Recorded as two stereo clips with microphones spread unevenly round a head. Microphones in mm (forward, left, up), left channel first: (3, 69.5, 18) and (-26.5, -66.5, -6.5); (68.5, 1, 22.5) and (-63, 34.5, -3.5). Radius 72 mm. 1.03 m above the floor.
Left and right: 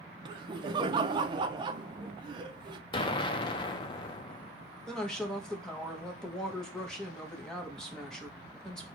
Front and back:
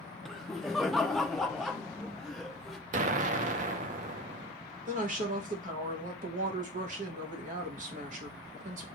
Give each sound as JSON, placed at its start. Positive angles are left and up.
{"t": 0.2, "sound": "laughter", "azimuth_deg": -115, "distance_m": 0.5}
{"t": 2.9, "sound": "an explosion", "azimuth_deg": 130, "distance_m": 0.6}
{"t": 4.9, "sound": "a woman speaking", "azimuth_deg": 170, "distance_m": 1.1}